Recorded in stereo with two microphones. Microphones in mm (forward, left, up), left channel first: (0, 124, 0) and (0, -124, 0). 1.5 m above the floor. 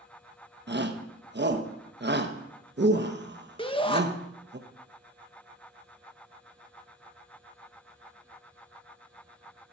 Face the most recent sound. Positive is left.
turn(degrees=20)  # may be behind; listen again after turning